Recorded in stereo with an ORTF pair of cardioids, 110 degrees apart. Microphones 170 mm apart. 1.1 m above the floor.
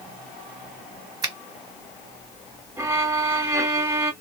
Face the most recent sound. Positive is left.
turn(degrees=-15)